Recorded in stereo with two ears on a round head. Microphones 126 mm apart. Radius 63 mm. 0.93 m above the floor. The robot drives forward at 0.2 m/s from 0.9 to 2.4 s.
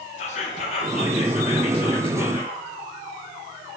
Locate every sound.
0.2 s whispering: 45° left (ahead or behind), 0.6 m; by 2.6 s 35° left (ahead or behind), 0.8 m